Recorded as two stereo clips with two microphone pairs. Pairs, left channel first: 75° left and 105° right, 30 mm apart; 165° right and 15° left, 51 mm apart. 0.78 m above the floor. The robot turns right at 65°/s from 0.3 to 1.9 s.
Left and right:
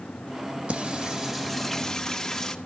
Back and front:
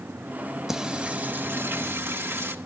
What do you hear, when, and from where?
0.7 s singing: 65° right, 1.1 m; by 2.5 s 15° left, 1.1 m